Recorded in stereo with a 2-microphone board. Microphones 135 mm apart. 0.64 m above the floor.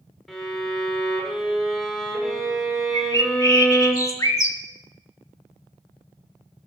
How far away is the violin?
About 2.5 m.